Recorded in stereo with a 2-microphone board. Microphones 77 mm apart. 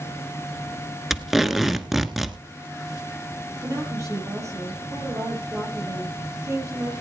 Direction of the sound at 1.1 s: 5° right (ahead or behind).